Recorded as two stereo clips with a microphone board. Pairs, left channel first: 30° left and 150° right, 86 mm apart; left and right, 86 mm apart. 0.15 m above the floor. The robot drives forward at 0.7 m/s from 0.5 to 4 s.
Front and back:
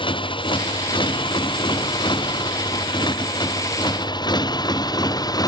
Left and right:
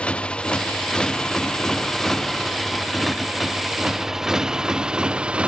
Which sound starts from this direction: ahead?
A motorcycle, at 0.0 s.